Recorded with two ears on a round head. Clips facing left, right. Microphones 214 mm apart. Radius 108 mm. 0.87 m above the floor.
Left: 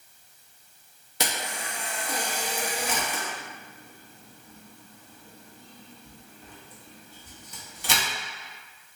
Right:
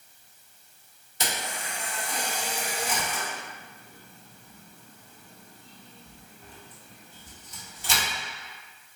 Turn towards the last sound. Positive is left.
turn(degrees=50)  # may be behind; listen again after turning